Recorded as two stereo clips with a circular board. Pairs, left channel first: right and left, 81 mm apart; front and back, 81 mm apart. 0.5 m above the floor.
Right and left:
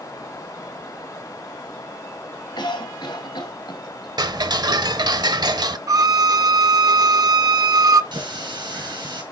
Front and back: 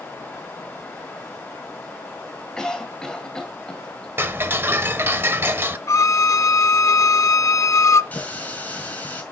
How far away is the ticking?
About 0.8 m.